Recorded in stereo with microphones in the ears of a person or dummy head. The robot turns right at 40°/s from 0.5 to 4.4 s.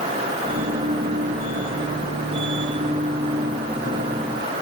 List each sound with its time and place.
Only background noise.